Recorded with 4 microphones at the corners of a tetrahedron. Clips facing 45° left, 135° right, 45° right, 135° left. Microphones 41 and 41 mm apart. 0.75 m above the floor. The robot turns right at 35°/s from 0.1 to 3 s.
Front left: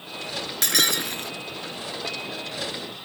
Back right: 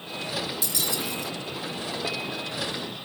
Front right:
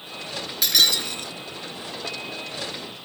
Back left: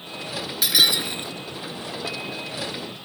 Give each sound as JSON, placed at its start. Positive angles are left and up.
{"t": 0.6, "sound": "breaking glass", "azimuth_deg": 55}